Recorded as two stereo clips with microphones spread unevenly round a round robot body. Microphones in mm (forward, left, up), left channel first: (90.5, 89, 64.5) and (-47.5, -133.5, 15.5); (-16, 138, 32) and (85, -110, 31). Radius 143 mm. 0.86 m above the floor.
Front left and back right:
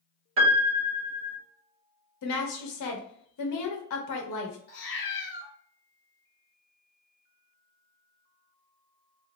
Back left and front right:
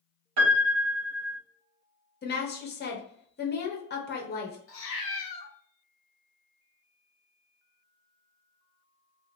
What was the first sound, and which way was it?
A piano, 95° right.